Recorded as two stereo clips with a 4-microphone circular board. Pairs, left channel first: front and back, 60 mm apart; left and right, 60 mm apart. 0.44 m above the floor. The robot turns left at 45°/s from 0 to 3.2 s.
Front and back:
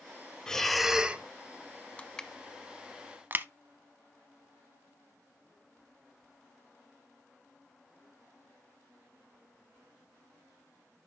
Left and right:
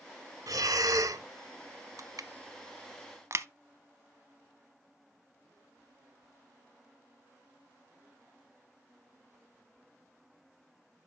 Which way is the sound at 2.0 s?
70° right.